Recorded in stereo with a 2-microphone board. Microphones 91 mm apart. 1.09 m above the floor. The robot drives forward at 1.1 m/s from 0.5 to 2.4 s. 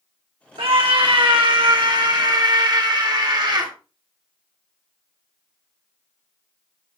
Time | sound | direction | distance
0.6 | a scream | 80° right | 3 m